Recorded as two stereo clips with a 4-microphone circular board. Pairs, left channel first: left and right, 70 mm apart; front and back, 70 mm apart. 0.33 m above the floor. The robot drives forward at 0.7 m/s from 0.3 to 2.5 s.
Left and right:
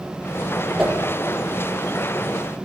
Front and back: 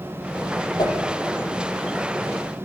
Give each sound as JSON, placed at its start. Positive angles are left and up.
{"t": 0.8, "sound": "a whoosh", "azimuth_deg": -5, "distance_m": 5.0}